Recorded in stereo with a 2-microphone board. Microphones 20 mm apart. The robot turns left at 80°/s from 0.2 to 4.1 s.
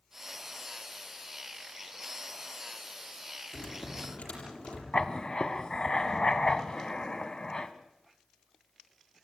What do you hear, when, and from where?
3.5 s typing on a keyboard: 145° left, 7 m; by 4.8 s 100° left, 7 m
4.9 s writing: 30° left (ahead or behind), 1.3 m